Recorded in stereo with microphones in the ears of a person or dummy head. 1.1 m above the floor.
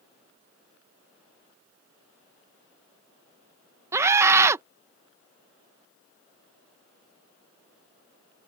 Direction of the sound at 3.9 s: 15° right (ahead or behind).